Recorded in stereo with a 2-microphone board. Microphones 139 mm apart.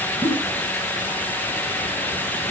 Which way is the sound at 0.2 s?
20° left (ahead or behind).